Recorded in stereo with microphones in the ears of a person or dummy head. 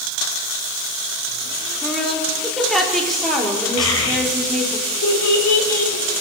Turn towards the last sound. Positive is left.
turn(degrees=90)